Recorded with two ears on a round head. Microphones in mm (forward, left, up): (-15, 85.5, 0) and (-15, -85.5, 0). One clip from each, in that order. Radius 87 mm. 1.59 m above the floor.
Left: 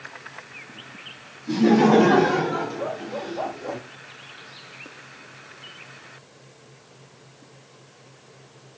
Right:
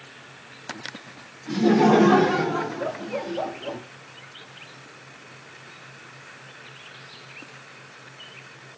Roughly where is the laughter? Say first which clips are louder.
Left 1 dB; centre.